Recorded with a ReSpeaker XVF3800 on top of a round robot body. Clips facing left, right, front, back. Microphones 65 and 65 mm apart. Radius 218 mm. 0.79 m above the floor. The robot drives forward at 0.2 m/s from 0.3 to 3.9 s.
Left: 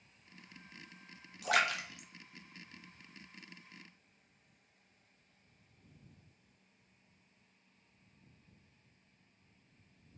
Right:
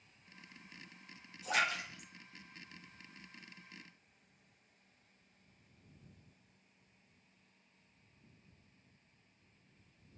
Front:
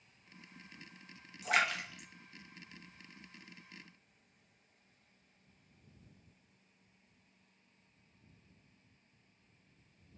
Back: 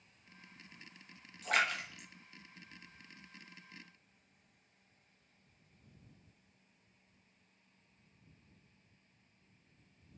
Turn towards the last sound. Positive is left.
turn(degrees=130)